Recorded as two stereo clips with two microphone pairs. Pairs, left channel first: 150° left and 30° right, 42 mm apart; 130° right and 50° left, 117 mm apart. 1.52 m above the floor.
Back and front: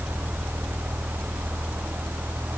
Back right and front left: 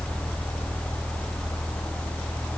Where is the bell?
No bell in this recording.